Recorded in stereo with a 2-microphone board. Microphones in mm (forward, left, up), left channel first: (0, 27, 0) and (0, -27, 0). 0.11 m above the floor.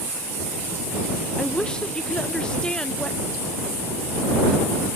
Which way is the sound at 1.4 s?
15° left (ahead or behind).